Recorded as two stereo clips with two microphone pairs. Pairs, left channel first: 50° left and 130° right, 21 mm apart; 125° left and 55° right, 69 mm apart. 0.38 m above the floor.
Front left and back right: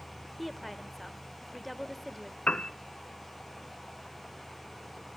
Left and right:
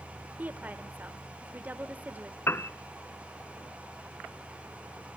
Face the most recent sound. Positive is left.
turn(degrees=65)